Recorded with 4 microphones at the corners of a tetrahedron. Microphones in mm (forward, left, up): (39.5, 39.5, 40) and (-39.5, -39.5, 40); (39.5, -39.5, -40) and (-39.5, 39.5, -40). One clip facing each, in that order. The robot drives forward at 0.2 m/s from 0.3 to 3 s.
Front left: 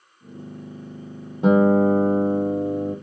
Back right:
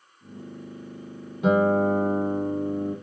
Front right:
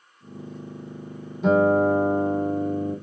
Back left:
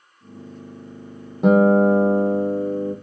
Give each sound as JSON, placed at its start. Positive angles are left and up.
{"t": 1.4, "sound": "a guitar", "azimuth_deg": 100, "distance_m": 1.1}